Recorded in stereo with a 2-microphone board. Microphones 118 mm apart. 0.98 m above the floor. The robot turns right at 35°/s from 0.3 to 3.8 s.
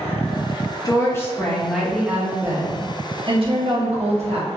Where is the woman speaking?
145° left, 0.7 m; by 4.5 s 110° right, 0.7 m.